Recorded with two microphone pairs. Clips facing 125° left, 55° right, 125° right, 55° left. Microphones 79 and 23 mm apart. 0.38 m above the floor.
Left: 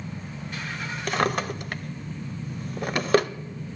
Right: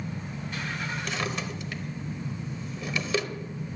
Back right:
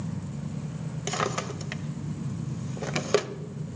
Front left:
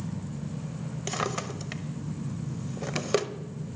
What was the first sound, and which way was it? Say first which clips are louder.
A drawer: left 12 dB, back right 2 dB; 155° left.